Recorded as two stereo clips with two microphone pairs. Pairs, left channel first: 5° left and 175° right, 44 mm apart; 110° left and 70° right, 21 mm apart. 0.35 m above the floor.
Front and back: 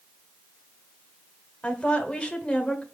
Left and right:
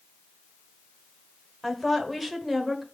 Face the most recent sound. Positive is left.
turn(degrees=15)